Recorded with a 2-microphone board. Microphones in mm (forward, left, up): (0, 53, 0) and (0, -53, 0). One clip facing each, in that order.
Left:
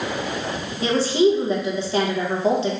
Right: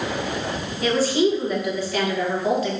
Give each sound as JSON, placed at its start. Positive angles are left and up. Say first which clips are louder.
{"t": 0.8, "sound": "a woman speaking", "louder": "left 2 dB", "side_deg": 30, "distance_m": 1.0}